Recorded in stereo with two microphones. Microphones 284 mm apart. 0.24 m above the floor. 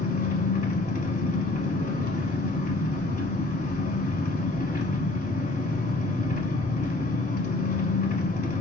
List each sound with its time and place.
0.0 s an engine running: 30° left (ahead or behind), 0.8 m